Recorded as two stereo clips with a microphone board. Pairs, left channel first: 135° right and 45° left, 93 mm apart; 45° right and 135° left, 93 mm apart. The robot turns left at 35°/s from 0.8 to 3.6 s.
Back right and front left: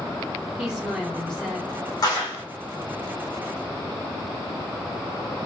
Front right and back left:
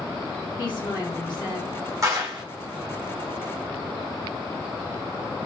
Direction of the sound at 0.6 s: 35° right.